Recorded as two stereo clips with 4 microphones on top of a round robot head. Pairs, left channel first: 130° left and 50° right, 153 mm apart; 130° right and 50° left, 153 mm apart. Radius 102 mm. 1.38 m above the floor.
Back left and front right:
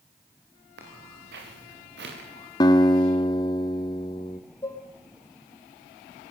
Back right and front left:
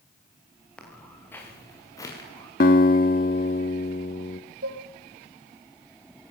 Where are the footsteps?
45° right, 8 m; by 2.5 s 65° right, 8 m.